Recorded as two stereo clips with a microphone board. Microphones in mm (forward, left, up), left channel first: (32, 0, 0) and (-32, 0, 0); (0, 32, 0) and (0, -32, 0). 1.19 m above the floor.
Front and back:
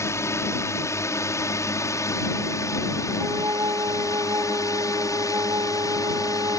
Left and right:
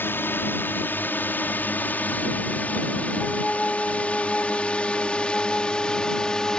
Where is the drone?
40° left; by 6.6 s 15° left.